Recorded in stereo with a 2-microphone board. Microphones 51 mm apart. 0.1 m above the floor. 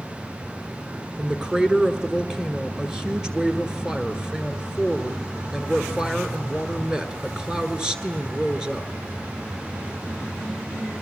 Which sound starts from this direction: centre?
A woman speaking, at 1.2 s.